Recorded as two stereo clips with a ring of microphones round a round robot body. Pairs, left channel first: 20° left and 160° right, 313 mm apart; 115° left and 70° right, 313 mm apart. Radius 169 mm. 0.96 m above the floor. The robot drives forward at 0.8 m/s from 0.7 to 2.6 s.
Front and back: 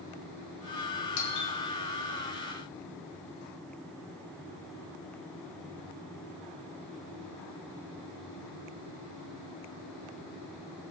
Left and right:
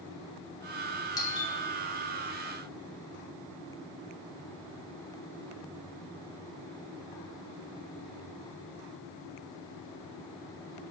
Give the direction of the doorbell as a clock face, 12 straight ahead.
11 o'clock.